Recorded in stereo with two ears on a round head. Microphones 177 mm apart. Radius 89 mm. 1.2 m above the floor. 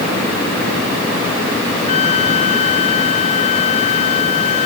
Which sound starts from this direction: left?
A trumpet, at 1.9 s.